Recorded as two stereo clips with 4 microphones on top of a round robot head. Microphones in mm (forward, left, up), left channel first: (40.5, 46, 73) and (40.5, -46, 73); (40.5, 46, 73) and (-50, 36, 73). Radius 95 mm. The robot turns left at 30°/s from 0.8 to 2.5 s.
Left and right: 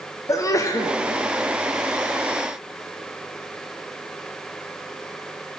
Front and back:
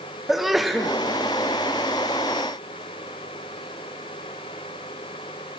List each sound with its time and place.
0.3 s a sneeze: 100° left, 0.7 m; by 0.9 s 95° left, 0.7 m